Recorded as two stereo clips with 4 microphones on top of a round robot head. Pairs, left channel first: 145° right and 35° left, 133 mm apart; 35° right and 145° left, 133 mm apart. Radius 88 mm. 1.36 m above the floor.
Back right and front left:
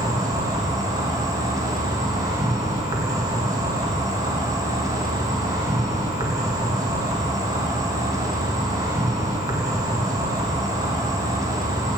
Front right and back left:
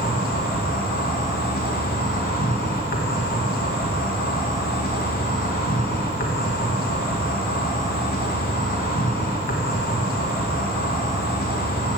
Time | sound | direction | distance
0.0 | an insect | 30° right | 1.6 m